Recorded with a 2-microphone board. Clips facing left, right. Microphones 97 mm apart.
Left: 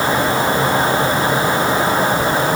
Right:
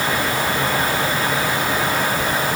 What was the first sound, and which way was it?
Only background noise.